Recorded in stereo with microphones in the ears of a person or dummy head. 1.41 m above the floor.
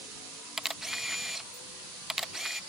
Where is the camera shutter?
Centre (ahead or behind).